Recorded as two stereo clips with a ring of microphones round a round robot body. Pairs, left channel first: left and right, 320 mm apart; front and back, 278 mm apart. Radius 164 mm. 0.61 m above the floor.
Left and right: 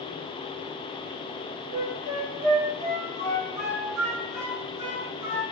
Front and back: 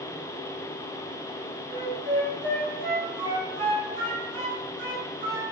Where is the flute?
120° right, 1.3 m.